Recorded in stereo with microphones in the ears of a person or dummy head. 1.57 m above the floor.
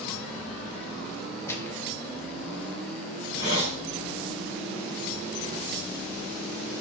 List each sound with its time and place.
1.5 s a gunshot: 15° left (ahead or behind), 0.9 m
3.1 s a hiss: 60° left (ahead or behind), 3.5 m